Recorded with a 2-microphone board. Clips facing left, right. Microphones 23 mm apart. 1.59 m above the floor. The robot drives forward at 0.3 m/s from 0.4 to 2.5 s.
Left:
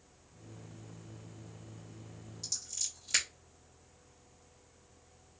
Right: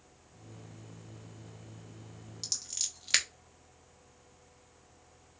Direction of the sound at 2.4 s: 55° right (ahead or behind).